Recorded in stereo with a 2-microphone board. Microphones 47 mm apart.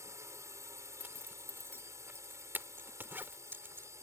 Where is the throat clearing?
I don't hear throat clearing.